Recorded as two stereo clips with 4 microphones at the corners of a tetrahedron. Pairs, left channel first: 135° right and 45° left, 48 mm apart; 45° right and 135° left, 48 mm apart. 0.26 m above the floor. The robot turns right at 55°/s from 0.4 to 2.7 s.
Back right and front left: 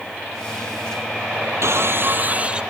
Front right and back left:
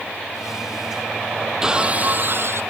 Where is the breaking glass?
60° left; by 2.6 s 115° left.